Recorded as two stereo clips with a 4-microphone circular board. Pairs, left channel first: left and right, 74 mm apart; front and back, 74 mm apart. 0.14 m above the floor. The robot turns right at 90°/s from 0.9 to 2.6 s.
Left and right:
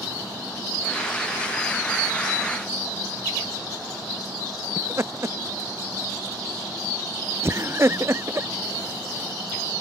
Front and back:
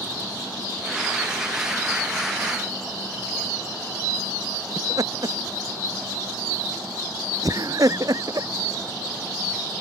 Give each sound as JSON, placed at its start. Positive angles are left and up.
{"t": 4.8, "sound": "laughter", "azimuth_deg": -145}